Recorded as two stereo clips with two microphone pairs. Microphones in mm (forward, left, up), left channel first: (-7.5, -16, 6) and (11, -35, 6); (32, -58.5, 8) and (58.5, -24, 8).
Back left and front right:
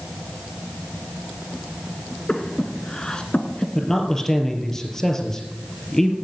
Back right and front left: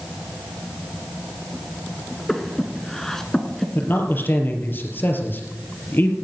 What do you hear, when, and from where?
2.3 s breathing: 160° left, 1.6 m
3.8 s a man speaking: 150° right, 3.5 m